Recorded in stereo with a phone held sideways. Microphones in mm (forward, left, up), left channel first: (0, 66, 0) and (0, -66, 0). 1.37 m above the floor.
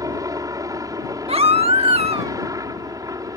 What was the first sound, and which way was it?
A helicopter, 25° right (ahead or behind).